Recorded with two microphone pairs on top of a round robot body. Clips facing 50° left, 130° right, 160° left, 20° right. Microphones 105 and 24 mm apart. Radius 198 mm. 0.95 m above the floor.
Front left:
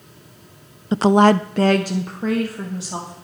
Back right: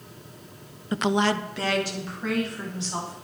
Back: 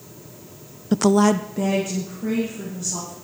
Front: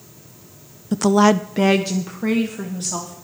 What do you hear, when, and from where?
0.9 s a woman speaking: 110° left, 0.6 m; by 3.1 s straight ahead, 2.5 m